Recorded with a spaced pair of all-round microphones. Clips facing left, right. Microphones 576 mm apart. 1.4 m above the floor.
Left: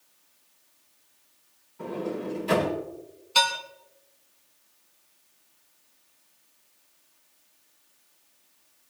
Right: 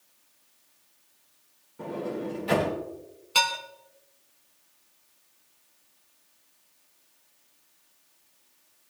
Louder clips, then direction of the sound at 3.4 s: Left 2 dB; 70° right (ahead or behind).